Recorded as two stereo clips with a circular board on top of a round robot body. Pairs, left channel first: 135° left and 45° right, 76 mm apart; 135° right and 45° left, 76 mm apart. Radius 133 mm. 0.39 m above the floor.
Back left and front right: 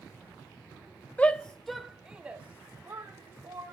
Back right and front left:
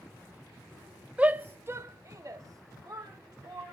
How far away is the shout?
About 1.3 m.